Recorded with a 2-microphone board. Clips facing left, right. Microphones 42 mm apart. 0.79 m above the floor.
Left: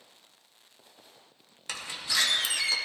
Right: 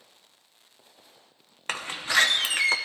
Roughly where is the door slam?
Right.